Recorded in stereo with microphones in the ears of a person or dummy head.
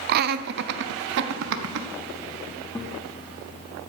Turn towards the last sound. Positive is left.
turn(degrees=15)  # may be behind; listen again after turning